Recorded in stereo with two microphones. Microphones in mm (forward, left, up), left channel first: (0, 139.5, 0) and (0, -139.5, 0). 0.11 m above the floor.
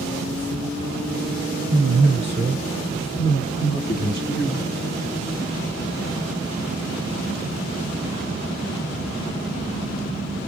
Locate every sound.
1.7 s a man speaking: 40° right (ahead or behind), 1.4 m; by 4.7 s 45° left (ahead or behind), 2 m